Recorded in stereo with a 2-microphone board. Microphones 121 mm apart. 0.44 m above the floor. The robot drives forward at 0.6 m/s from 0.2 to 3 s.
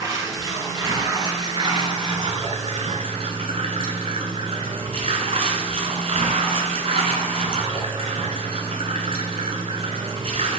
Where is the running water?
30° right (ahead or behind), 3 m; by 10.6 s 55° right (ahead or behind), 1.7 m.